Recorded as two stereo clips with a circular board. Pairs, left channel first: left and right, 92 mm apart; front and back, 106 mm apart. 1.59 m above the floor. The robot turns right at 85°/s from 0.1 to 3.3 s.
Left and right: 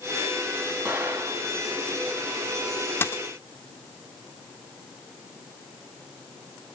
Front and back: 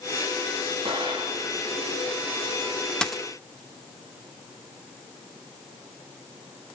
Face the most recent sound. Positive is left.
turn(degrees=100)